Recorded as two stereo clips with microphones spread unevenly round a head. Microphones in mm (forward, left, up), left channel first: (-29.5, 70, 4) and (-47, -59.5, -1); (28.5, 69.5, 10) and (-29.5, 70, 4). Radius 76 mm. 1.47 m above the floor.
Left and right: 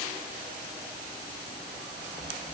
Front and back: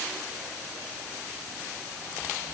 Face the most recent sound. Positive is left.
No sound to turn to.